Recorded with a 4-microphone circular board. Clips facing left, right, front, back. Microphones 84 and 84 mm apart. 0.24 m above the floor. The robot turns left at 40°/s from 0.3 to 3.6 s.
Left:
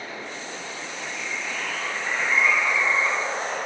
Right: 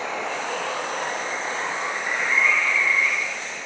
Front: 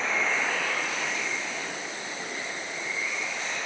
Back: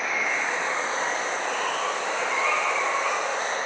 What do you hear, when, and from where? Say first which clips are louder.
0.0 s running water: right 8 dB, back 1 dB; 100° right; by 3.7 s 130° left